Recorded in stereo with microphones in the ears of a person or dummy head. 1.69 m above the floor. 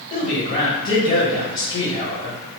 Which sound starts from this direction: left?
A man speaking, at 0.1 s.